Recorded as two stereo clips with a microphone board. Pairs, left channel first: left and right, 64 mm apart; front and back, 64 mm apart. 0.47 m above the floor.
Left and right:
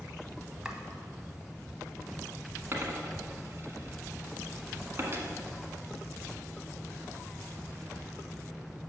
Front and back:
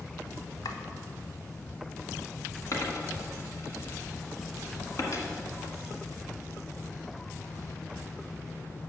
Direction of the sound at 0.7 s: 10° right.